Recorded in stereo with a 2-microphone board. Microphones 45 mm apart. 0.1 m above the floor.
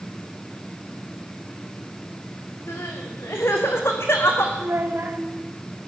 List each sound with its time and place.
2.7 s crying: 70° left (ahead or behind), 4 m
4.6 s a child speaking: 65° right (ahead or behind), 6 m